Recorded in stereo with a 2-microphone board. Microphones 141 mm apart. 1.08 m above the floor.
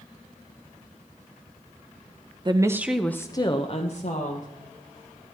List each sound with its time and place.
2.5 s a woman speaking: 35° right (ahead or behind), 0.8 m; by 4.5 s 60° left (ahead or behind), 1.6 m